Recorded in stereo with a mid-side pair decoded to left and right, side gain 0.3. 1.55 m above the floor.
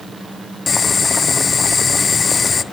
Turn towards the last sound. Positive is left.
turn(degrees=50)